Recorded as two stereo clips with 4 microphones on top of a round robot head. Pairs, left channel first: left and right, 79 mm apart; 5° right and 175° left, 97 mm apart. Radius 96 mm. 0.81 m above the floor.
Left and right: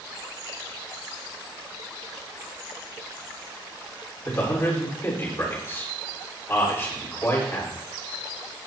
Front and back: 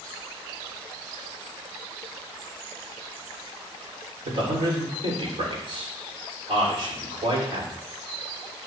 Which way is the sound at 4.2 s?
145° left.